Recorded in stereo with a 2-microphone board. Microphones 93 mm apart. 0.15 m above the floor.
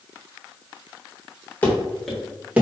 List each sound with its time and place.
1.6 s running footsteps: 20° left (ahead or behind), 1.3 m; by 2.6 s 15° right (ahead or behind), 1.0 m